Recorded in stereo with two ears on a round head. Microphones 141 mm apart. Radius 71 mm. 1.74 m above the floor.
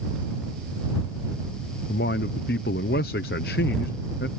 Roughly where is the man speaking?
Left.